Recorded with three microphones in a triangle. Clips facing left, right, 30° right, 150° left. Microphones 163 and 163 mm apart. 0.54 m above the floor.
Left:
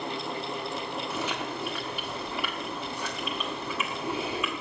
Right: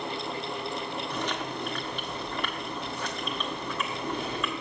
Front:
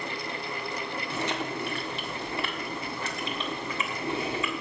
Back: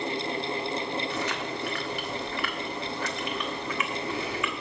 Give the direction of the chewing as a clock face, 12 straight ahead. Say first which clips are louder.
Even, even; 12 o'clock.